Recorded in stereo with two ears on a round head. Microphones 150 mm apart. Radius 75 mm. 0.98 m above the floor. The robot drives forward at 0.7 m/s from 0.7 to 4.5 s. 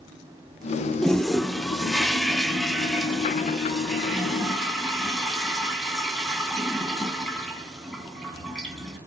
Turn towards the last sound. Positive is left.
turn(degrees=0)  # may be behind; listen again after turning